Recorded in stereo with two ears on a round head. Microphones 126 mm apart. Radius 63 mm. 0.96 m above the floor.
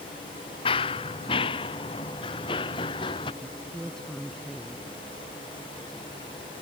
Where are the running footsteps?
40° left (ahead or behind); by 3.3 s 35° left (ahead or behind).